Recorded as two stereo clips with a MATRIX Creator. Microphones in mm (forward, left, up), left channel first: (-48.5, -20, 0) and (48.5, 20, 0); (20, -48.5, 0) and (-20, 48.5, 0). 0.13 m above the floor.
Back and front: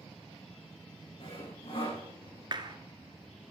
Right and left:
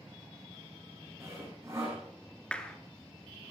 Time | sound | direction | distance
1.2 | sawing | 175° left | 9 m
2.5 | a clap | 10° left | 1.4 m